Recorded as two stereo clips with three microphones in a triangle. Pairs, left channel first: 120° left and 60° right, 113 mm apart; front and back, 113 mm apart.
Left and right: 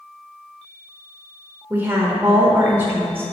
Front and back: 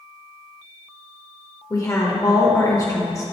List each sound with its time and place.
1.7 s a woman speaking: 15° right, 0.9 m